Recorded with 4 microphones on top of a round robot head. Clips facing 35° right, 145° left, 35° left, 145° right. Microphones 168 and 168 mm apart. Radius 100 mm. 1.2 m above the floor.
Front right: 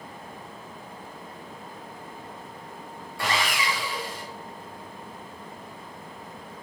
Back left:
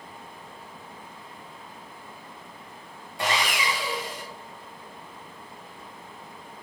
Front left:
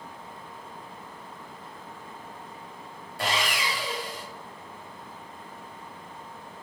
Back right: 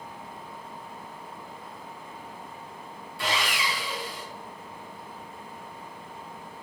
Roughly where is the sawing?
Left.